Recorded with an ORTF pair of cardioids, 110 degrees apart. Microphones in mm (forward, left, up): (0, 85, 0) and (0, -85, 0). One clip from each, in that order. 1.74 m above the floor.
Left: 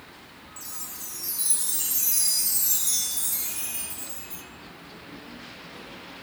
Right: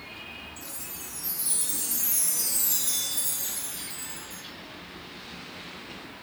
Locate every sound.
0.6 s a chime: 35° left, 2.5 m